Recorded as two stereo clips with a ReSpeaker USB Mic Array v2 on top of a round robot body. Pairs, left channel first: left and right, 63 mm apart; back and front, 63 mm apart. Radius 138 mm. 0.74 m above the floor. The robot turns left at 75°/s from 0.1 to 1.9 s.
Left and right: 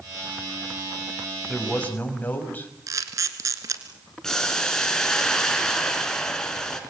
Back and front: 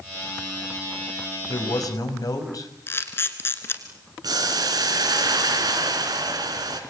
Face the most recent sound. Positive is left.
turn(degrees=10)